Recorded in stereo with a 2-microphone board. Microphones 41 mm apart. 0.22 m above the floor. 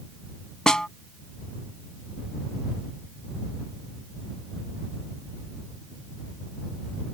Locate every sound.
0.7 s a snare drum: 20° left (ahead or behind)